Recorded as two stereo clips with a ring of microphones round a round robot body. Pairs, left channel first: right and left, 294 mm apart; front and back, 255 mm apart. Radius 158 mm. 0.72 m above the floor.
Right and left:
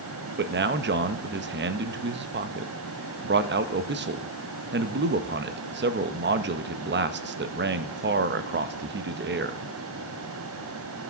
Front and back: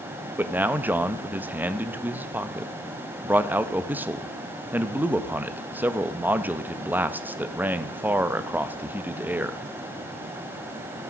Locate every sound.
0.4 s a man speaking: 100° left, 0.6 m